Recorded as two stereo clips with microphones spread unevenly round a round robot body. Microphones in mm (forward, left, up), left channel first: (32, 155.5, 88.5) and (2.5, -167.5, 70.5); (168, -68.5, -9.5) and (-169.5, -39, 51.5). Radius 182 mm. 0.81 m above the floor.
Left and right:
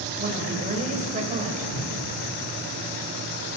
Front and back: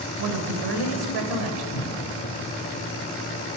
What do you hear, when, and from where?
0.2 s a woman speaking: 165° right, 4 m
1.7 s a cupboard door: 35° left, 5 m